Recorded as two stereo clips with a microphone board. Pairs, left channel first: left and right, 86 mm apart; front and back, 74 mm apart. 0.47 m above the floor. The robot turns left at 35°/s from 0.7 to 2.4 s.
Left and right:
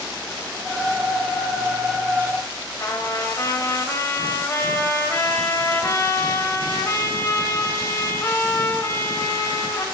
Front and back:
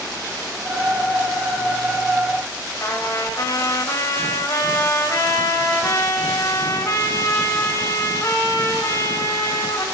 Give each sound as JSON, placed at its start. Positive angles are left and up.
{"t": 2.8, "sound": "a trumpet", "azimuth_deg": 35, "distance_m": 1.5}